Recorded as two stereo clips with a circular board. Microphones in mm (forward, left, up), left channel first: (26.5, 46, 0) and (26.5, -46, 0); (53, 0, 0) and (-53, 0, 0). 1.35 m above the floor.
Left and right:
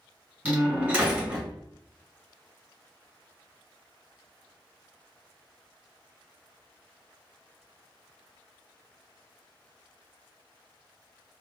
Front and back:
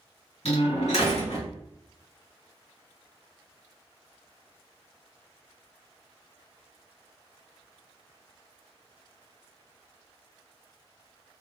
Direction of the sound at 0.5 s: 20° right.